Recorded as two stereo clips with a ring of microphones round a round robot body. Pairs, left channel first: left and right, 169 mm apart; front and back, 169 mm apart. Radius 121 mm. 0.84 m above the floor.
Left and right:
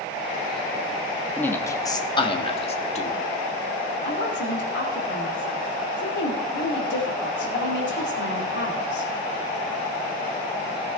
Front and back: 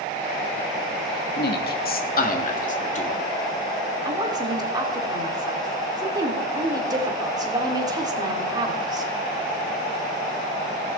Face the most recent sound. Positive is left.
turn(degrees=115)